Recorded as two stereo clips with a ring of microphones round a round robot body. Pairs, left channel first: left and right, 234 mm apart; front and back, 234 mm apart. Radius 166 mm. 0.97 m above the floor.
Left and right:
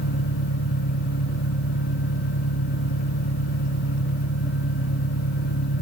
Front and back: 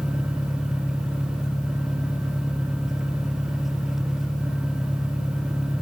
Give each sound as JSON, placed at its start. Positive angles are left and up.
{"t": 0.0, "sound": "an engine running", "azimuth_deg": 90}